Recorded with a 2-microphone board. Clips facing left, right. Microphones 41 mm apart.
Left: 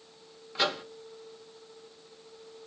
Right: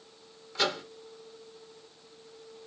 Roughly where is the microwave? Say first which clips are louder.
Even; centre.